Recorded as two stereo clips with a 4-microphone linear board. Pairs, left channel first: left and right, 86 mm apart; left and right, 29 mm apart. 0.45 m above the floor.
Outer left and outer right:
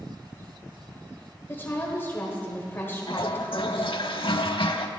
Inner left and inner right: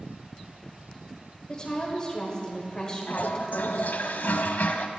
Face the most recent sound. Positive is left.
turn(degrees=80)